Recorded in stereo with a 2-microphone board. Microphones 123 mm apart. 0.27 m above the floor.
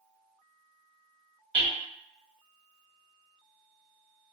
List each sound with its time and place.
1.5 s hammering: 10° left (ahead or behind), 1.8 m